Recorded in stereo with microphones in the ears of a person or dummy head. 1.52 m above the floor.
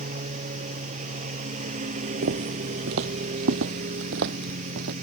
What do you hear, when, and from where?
0.0 s a lawn mower: 40° right (ahead or behind)
2.2 s footsteps: 50° right (ahead or behind); by 4.9 s 60° right (ahead or behind)